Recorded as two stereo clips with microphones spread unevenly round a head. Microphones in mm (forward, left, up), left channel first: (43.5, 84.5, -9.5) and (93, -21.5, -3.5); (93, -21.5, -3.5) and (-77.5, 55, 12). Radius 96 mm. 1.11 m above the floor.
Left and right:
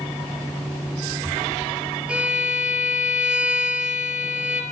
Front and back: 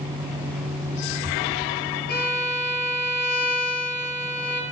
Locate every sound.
2.1 s a violin: 15° left, 5 m